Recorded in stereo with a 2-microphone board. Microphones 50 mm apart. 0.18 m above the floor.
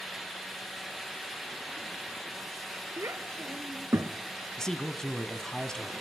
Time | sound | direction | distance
3.0 | a child speaking | 70° right (ahead or behind) | 2 m
4.6 | a man speaking | 10° left (ahead or behind) | 1.6 m